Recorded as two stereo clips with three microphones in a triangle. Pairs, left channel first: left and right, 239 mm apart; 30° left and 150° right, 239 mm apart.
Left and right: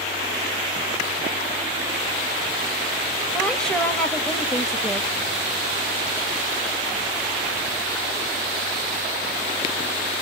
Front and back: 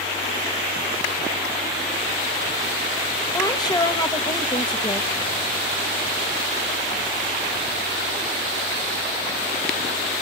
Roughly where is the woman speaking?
Ahead.